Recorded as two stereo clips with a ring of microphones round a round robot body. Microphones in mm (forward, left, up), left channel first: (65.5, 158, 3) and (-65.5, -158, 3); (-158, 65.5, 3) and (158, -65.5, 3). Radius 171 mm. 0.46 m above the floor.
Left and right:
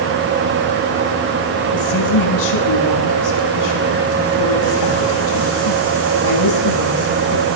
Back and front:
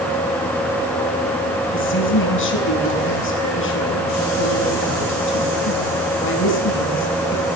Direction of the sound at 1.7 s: 100° left.